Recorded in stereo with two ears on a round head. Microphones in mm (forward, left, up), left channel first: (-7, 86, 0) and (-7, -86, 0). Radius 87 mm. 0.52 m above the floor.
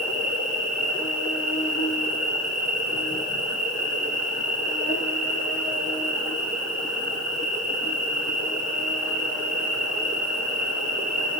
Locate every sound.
0.0 s an insect: 40° left (ahead or behind), 7.5 m